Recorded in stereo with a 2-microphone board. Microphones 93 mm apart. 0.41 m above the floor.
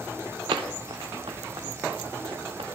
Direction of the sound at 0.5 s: 75° right (ahead or behind).